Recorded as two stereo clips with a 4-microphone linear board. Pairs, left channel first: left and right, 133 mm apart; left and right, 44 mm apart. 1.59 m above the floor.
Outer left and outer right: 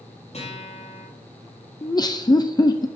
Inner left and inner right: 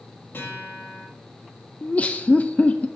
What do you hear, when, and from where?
0.3 s a guitar: 55° left (ahead or behind), 5.5 m
1.8 s laughter: 30° left (ahead or behind), 0.5 m